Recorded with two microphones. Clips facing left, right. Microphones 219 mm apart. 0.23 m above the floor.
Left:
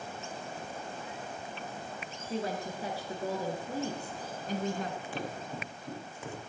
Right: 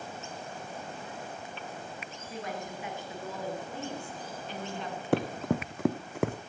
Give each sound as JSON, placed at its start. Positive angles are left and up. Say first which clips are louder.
{"t": 2.3, "sound": "a woman speaking", "louder": "left 4 dB", "side_deg": 30, "distance_m": 4.0}
{"t": 5.1, "sound": "running footsteps", "louder": "right 10 dB", "side_deg": -60, "distance_m": 1.0}